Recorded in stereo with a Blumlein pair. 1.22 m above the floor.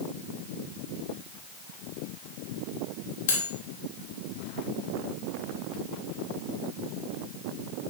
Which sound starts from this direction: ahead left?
Cutlery clinking, at 3.3 s.